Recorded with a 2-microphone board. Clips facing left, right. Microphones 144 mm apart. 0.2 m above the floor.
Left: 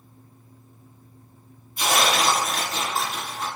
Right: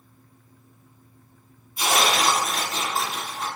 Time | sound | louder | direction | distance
1.8 | tearing paper | even | 5° right (ahead or behind) | 2.5 m